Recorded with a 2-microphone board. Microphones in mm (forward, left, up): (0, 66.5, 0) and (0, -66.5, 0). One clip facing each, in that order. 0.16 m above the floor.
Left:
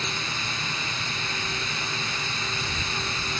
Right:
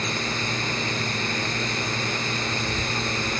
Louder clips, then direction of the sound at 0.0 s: Right 5 dB; 60° right (ahead or behind).